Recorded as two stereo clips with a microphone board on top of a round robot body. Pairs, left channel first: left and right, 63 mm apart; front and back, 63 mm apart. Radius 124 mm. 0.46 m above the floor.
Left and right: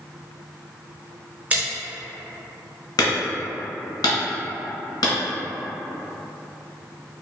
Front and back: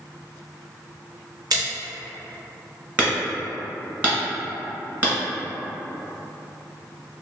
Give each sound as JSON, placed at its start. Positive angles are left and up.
{"t": 1.5, "sound": "a splash", "azimuth_deg": -155, "distance_m": 1.1}
{"t": 3.0, "sound": "hammering", "azimuth_deg": 115, "distance_m": 1.4}